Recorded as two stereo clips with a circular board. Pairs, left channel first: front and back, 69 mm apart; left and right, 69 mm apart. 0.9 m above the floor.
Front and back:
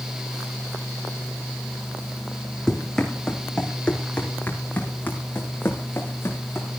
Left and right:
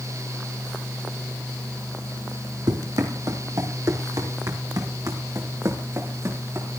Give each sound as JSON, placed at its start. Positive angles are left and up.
{"t": 2.7, "sound": "running footsteps", "azimuth_deg": -85, "distance_m": 4.0}